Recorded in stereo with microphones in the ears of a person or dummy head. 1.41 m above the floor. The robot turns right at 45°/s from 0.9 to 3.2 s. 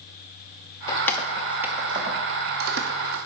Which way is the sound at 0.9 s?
10° left (ahead or behind).